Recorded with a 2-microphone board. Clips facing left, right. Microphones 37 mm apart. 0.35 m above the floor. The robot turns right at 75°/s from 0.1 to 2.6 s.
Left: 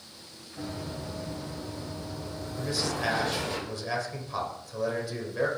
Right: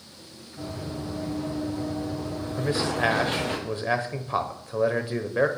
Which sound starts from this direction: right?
A man speaking, at 2.6 s.